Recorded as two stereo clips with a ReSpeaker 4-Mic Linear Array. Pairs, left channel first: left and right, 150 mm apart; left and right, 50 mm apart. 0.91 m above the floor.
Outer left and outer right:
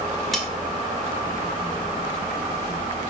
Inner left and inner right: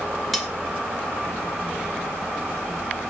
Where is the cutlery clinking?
Centre (ahead or behind), 0.6 m.